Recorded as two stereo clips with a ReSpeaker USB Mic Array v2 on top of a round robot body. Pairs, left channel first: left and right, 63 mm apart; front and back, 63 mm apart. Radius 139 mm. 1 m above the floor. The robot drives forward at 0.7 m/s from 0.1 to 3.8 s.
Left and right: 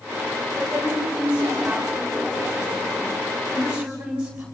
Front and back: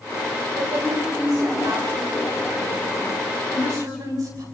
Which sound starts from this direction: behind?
A woman speaking, at 0.6 s.